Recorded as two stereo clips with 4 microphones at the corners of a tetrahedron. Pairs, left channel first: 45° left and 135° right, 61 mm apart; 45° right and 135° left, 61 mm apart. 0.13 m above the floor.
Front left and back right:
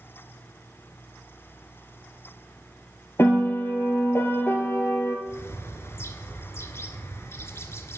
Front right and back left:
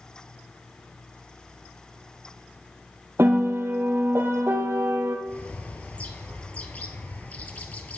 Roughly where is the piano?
Left.